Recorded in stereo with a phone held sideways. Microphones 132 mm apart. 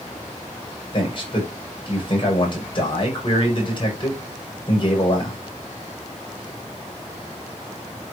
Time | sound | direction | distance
0.9 | a man speaking | 40° left (ahead or behind) | 6 m